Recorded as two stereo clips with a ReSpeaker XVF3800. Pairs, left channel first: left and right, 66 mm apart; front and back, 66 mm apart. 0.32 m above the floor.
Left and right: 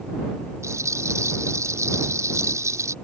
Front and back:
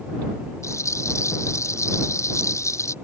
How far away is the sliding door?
No sliding door in this recording.